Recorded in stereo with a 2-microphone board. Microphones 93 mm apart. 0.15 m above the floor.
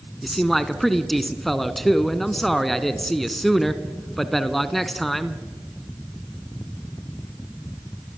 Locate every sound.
0.2 s a man speaking: centre (ahead or behind), 1.3 m